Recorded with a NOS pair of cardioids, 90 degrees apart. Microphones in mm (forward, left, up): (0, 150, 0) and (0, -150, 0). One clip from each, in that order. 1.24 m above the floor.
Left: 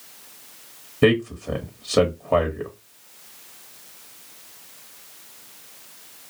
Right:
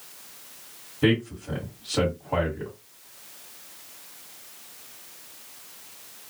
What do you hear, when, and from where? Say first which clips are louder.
1.0 s a man speaking: left 5 dB; 55° left, 1.2 m